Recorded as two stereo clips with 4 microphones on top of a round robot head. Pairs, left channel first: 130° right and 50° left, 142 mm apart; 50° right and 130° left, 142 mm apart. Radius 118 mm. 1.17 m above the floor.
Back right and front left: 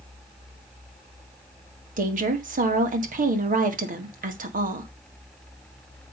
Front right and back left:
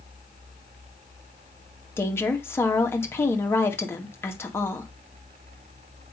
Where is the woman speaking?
25° left, 2 m.